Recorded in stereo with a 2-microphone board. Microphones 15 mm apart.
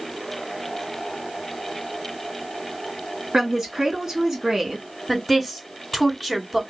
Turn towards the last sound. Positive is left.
turn(degrees=5)  # may be behind; listen again after turning